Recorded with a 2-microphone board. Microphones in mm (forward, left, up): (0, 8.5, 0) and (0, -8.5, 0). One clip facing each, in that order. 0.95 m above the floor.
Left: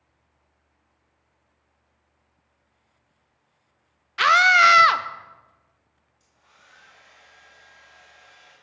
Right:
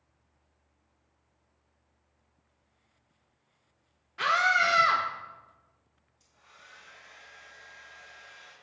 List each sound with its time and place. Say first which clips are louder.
4.2 s a scream: left 9 dB; 65° left (ahead or behind), 0.6 m
6.2 s a hair dryer: right 2 dB; 10° right (ahead or behind), 3.5 m